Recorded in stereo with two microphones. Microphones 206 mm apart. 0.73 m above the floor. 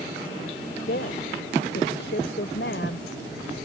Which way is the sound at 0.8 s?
70° left (ahead or behind).